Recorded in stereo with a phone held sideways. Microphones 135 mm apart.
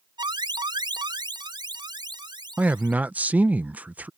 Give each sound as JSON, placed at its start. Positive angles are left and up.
{"t": 0.2, "sound": "an alarm", "side_deg": -35}
{"t": 2.6, "sound": "a man speaking", "side_deg": -10}